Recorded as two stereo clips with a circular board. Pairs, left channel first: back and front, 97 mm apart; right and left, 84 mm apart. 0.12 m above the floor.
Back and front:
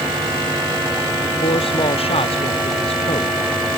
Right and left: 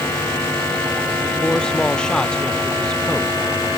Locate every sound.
1.4 s a man speaking: 170° right; by 3.3 s 175° right